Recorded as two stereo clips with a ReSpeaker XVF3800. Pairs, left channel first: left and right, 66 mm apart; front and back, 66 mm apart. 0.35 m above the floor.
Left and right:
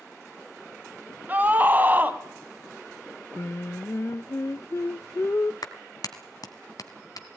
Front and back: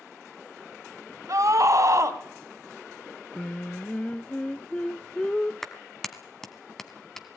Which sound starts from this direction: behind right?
A scream, at 1.3 s.